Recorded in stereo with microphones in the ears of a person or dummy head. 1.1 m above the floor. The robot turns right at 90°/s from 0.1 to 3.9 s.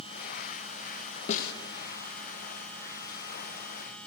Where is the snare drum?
45° left (ahead or behind), 0.5 m; by 1.5 s 65° left (ahead or behind), 0.5 m.